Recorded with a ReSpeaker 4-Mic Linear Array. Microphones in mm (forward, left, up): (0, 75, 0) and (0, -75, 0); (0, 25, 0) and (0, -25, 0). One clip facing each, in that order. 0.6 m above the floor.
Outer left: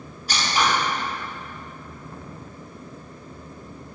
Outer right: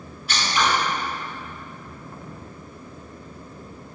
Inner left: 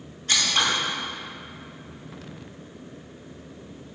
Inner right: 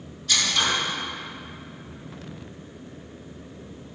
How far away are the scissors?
About 2.5 m.